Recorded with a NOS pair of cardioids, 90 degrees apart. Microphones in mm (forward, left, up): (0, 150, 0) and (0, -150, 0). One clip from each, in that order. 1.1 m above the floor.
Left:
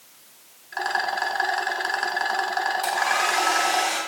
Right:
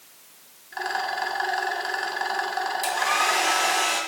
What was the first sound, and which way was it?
A rattle, 20° left.